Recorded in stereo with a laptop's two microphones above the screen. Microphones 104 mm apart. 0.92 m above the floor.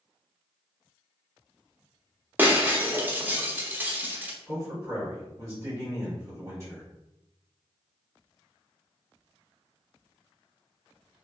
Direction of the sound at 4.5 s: 30° right (ahead or behind).